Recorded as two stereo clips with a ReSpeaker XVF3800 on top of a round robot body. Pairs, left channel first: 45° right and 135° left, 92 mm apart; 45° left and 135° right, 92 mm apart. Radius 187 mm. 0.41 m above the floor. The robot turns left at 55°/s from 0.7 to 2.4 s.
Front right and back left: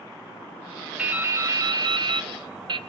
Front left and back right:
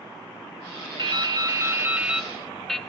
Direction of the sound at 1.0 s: 150° right.